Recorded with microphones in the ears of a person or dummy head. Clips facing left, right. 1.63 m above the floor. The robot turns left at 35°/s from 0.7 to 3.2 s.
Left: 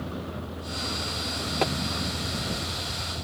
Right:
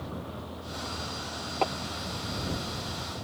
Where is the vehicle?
150° left; by 3.2 s 65° left.